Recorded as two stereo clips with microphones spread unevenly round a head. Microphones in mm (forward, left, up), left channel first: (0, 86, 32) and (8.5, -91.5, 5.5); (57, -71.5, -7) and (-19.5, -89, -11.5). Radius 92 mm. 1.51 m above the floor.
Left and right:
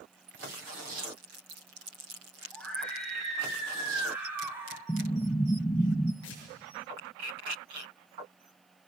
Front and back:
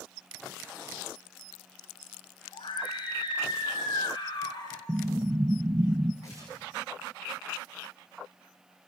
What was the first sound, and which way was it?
A scream, 10° left.